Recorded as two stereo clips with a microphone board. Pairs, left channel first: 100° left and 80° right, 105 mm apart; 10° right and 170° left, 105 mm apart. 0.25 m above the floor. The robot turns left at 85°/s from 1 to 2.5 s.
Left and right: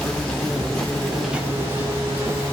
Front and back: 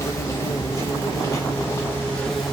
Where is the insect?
20° left, 0.8 m; by 2.5 s 110° right, 0.8 m.